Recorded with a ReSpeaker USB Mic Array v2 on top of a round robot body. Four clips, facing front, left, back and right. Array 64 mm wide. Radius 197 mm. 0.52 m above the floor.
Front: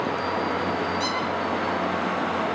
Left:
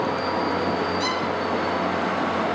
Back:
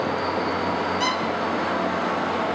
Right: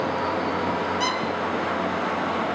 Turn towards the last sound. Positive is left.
turn(degrees=-140)